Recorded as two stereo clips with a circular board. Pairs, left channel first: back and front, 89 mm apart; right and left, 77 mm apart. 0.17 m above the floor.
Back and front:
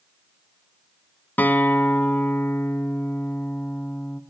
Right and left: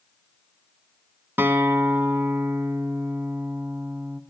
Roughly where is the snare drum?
I don't hear a snare drum.